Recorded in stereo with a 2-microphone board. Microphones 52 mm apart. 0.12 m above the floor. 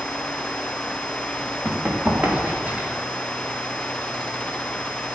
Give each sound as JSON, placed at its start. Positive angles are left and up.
{"t": 1.6, "sound": "running footsteps", "side_deg": -25, "distance_m": 5.0}